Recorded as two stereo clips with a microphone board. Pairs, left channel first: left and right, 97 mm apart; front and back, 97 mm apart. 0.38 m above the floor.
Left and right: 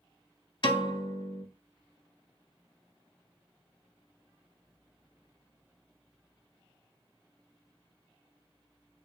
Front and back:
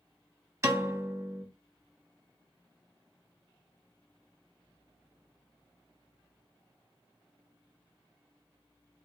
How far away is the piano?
About 0.7 m.